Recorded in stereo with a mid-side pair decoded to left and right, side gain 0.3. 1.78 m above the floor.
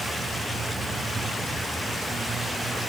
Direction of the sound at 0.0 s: 65° right.